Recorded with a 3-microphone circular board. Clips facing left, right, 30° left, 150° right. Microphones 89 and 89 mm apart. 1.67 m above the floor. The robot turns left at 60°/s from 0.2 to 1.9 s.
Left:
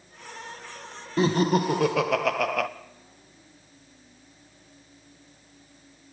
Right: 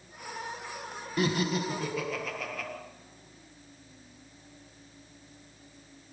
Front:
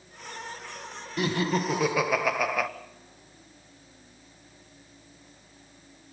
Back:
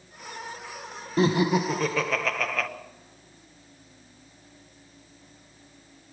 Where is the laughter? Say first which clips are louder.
Left 7 dB, back 5 dB; 150° left, 1.6 m; by 2.7 s 110° left, 1.6 m.